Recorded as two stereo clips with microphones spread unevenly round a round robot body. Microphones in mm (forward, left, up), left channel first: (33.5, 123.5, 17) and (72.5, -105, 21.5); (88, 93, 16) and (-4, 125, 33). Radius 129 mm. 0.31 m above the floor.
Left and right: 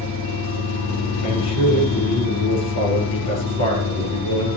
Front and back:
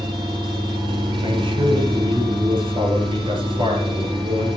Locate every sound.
0.0 s an engine running: 125° left, 4.5 m
1.2 s a man speaking: 130° left, 5.5 m